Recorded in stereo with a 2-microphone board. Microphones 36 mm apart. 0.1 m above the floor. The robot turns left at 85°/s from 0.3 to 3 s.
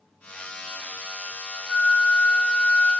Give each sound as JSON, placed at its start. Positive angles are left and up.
{"t": 1.7, "sound": "a flute", "azimuth_deg": 150, "distance_m": 2.5}